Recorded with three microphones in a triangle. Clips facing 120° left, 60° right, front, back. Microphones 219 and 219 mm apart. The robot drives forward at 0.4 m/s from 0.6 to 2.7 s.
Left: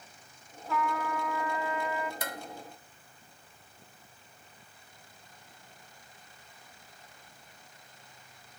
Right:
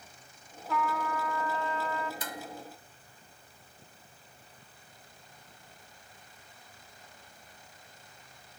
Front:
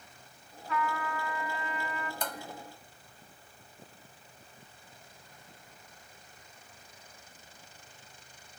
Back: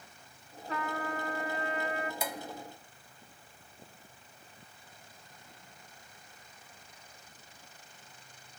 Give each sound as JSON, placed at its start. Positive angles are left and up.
{"t": 0.7, "sound": "a trumpet", "azimuth_deg": -150, "distance_m": 1.2}
{"t": 2.2, "sound": "dishes clattering", "azimuth_deg": 95, "distance_m": 1.5}